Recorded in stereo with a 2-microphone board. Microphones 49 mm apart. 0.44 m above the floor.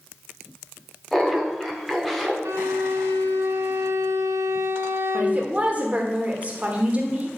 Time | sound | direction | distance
1.1 | laughter | 5° left (ahead or behind) | 1.0 m
2.5 | a violin | 80° right | 1.3 m
5.1 | a woman speaking | 30° right (ahead or behind) | 1.3 m